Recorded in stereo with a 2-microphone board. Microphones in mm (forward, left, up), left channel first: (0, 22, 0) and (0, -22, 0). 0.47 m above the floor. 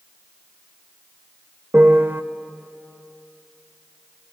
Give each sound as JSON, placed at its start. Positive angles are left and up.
{"t": 1.7, "sound": "a piano", "side_deg": -55, "distance_m": 1.0}